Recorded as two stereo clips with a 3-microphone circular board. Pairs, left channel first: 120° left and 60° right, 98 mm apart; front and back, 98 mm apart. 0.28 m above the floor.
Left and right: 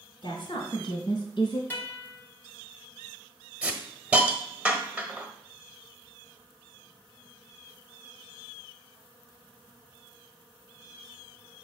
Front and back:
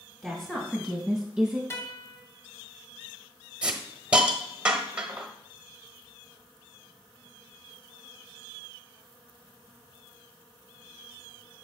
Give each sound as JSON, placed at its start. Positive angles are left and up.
{"t": 0.2, "sound": "a woman speaking", "azimuth_deg": 85, "distance_m": 2.0}
{"t": 1.7, "sound": "a guitar", "azimuth_deg": 55, "distance_m": 1.8}
{"t": 3.6, "sound": "a hiss", "azimuth_deg": -120, "distance_m": 1.1}